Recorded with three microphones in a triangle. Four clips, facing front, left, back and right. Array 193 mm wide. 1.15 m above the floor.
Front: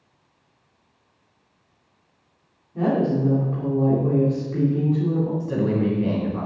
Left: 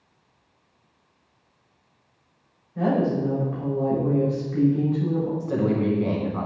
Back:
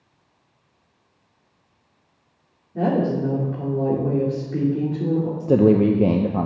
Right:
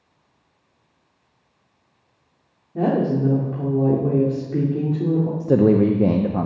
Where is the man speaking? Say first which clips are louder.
Right 12 dB, back 7 dB; 140° right, 0.8 m.